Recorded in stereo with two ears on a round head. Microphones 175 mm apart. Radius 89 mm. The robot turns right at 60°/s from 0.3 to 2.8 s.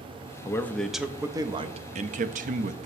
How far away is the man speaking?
About 0.6 m.